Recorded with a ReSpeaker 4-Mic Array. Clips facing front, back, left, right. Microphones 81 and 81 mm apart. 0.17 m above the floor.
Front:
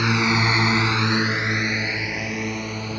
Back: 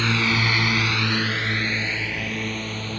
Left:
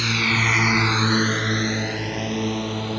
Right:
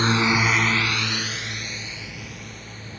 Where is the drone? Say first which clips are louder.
Front 2 dB, right 3 dB; 65° right; by 3.0 s 80° left.